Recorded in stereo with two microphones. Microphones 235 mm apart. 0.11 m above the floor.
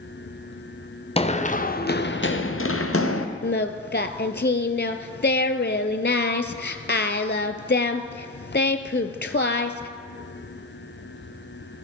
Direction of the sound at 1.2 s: 25° left (ahead or behind).